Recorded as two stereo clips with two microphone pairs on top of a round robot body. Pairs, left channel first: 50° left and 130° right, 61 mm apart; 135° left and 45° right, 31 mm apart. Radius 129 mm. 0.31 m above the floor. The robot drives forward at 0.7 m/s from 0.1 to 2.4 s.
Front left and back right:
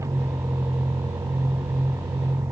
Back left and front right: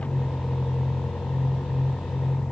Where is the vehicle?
175° right.